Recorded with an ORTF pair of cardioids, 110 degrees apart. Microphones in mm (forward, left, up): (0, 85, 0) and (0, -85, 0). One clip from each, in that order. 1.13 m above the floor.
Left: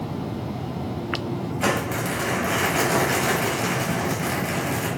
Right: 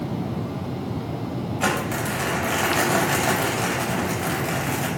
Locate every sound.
1.6 s crumpling: 5° right, 5 m